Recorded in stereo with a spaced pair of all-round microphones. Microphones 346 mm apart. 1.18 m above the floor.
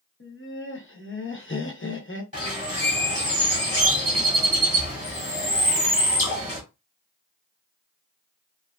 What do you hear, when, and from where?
0.2 s laughter: 35° left (ahead or behind), 0.8 m
2.3 s a bird: 20° right (ahead or behind), 1.5 m